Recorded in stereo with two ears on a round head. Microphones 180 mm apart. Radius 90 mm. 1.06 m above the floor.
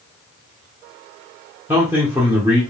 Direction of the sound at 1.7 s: 15° right (ahead or behind).